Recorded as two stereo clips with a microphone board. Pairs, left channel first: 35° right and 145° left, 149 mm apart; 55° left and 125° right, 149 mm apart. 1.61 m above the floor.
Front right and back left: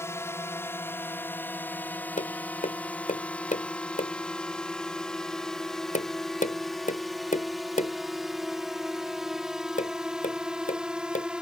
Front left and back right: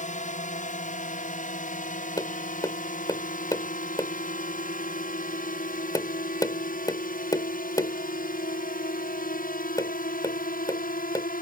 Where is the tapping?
10° right.